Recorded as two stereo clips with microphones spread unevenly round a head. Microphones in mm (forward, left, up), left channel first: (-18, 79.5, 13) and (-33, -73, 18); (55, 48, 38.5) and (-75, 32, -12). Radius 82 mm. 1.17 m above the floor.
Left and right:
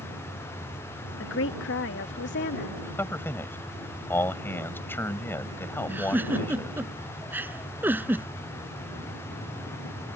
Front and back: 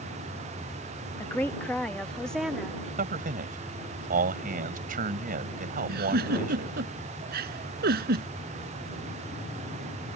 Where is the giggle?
175° right.